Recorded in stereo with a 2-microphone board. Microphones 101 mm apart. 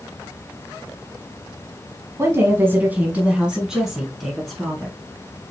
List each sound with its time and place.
2.2 s a woman speaking: 30° right (ahead or behind), 1.2 m; by 5.0 s 5° left (ahead or behind), 2 m